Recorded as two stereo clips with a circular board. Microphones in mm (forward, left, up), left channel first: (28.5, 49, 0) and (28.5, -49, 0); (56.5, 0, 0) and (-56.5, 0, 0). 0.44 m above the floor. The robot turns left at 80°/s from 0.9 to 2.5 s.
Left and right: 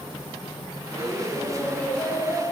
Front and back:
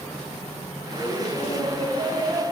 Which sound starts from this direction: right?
Laughter, at 0.9 s.